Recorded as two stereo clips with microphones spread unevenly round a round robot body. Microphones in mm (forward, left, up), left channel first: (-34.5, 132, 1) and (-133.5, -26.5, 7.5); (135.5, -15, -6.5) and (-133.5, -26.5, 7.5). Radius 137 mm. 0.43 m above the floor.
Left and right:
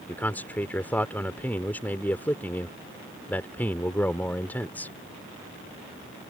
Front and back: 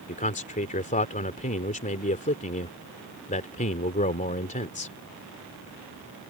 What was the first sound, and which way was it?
A man speaking, 15° right.